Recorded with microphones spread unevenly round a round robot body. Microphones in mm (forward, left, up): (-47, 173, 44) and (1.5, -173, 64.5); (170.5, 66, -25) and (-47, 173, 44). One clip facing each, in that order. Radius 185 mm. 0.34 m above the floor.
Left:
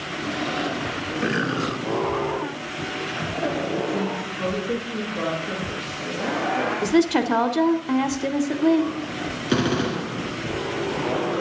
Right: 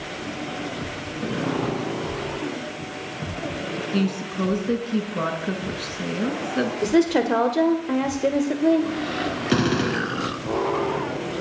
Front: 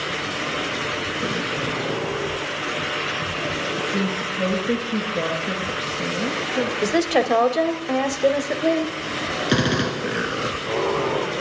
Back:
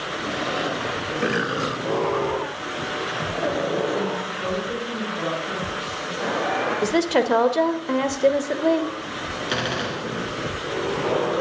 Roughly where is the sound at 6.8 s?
Ahead left.